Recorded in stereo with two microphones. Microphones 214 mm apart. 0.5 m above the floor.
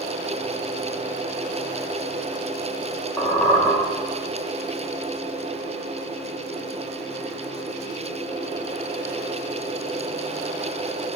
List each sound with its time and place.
3.2 s a squeak: 15° left (ahead or behind), 2.5 m